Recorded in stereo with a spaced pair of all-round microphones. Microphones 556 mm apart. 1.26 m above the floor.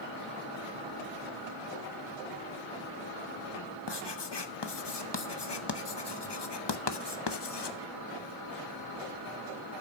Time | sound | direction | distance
3.9 | writing | 50° left (ahead or behind) | 0.8 m